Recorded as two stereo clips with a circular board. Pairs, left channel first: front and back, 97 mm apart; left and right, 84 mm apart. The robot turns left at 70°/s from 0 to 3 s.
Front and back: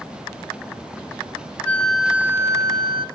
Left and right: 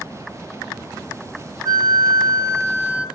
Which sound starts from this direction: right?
A flute, at 1.6 s.